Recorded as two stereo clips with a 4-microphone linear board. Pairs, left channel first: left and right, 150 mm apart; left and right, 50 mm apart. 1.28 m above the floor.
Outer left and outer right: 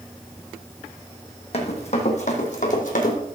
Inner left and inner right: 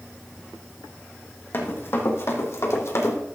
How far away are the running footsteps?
About 2.5 m.